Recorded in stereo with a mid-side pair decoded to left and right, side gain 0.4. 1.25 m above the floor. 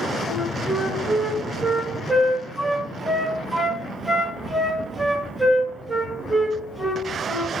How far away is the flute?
About 1.6 m.